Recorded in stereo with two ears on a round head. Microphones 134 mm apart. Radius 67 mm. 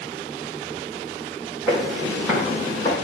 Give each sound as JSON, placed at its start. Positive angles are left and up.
{"t": 1.7, "sound": "footsteps", "side_deg": -5, "distance_m": 3.5}